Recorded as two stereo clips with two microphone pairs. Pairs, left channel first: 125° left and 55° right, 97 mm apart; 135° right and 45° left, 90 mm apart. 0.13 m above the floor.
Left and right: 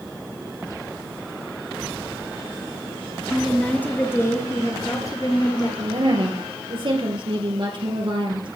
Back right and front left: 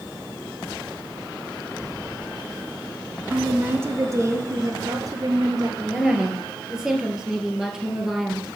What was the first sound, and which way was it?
A woman speaking, 45° left.